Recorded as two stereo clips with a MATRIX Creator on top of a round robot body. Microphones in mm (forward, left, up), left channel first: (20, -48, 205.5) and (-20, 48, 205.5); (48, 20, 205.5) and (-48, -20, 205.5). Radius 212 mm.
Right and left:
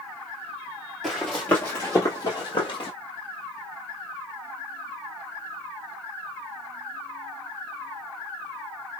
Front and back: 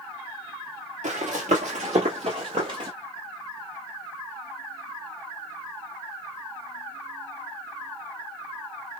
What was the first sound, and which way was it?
Running footsteps, 155° right.